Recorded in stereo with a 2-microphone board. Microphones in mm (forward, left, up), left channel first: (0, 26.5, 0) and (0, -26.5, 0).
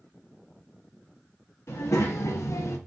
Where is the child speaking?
55° left (ahead or behind), 0.9 m.